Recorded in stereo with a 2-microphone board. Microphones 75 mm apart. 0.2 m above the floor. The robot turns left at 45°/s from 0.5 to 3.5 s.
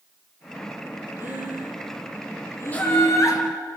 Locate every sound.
1.2 s breathing: 25° right (ahead or behind), 4 m; by 3.2 s 65° left (ahead or behind), 4 m
2.7 s laughter: 160° left, 4 m; by 3.4 s 130° left, 4 m